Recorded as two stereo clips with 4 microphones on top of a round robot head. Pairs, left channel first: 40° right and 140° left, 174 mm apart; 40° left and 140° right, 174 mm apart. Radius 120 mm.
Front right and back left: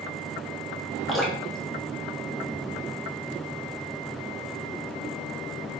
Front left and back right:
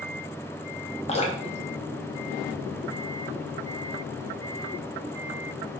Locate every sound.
1.1 s dripping: 45° left, 0.6 m